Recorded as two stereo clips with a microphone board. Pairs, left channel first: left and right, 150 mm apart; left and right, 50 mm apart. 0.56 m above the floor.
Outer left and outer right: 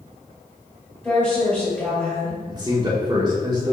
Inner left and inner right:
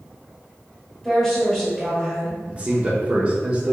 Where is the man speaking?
25° right (ahead or behind), 1.0 m.